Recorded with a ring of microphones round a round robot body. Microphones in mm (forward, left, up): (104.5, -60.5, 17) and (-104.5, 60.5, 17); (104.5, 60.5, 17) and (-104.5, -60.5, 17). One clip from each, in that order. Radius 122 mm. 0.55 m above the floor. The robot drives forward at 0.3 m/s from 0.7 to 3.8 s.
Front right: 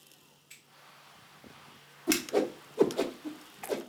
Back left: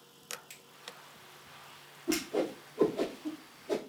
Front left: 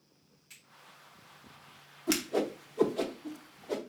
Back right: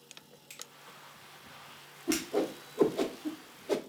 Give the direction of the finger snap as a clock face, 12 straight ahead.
7 o'clock.